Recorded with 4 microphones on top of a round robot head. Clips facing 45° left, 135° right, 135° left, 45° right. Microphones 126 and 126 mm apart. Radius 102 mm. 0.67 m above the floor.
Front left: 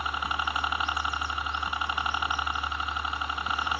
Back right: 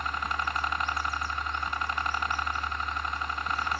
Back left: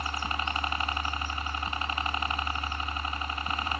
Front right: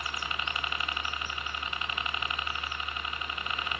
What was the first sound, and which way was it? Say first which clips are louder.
A helicopter: front left 1 dB, back left 4 dB; 120° left.